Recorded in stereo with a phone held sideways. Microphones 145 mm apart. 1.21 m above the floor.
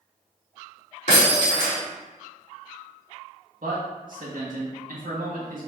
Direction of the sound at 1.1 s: 55° left (ahead or behind).